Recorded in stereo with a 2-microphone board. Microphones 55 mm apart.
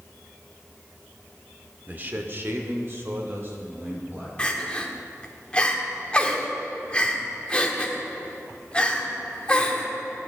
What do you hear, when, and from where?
1.9 s a man speaking: 30° right (ahead or behind), 0.9 m; by 4.3 s 40° right (ahead or behind), 2.5 m
4.4 s crying: 20° left (ahead or behind), 1.1 m